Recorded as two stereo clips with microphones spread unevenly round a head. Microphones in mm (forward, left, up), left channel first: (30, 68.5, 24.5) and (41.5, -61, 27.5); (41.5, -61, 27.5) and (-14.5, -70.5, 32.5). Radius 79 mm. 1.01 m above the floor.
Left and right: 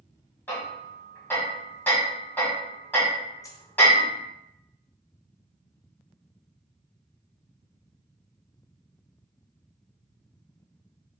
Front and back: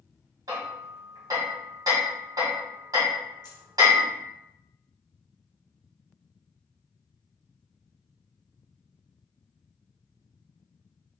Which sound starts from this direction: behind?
Hammering, at 0.5 s.